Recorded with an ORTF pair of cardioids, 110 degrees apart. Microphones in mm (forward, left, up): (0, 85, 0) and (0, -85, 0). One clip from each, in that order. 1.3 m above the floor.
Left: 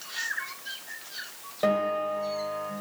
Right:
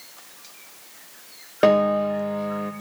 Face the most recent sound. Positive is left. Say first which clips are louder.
# right 8 dB
turn(degrees=-60)